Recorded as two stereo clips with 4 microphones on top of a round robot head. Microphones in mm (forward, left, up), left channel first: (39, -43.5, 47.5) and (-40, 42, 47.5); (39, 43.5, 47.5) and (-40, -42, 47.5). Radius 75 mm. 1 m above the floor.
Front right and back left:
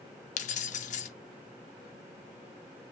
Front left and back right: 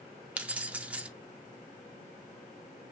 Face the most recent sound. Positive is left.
turn(degrees=-55)